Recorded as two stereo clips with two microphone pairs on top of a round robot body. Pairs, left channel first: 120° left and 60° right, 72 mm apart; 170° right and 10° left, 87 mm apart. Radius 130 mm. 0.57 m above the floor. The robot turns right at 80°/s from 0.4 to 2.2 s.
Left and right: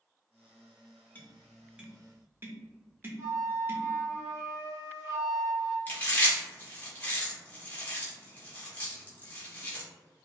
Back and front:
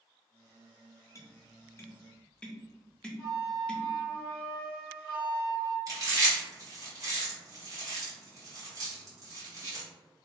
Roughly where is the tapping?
Behind.